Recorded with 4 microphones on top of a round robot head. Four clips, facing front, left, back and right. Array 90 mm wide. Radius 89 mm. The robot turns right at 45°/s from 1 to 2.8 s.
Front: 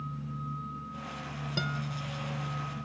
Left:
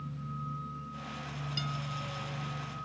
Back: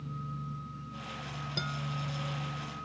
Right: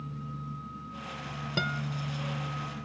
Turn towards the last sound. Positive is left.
turn(degrees=-20)